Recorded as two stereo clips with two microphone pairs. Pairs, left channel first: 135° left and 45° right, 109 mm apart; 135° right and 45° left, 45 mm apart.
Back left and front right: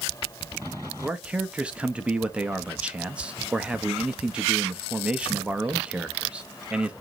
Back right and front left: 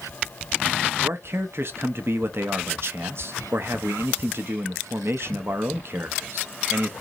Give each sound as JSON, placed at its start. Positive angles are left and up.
{"t": 1.0, "sound": "a man speaking", "azimuth_deg": 35, "distance_m": 0.8}